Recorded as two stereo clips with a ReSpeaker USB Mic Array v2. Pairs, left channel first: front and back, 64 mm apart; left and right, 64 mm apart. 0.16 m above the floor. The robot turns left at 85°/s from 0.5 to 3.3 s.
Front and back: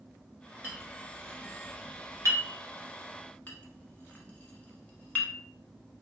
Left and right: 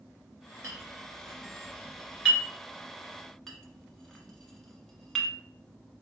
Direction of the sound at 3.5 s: 10° left.